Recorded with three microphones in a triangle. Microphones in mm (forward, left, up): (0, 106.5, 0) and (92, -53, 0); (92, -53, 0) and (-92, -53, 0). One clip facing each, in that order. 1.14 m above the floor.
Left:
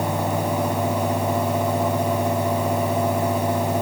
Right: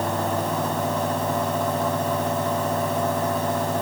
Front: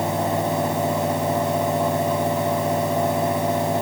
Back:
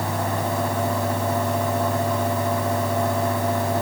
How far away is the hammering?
No hammering in this recording.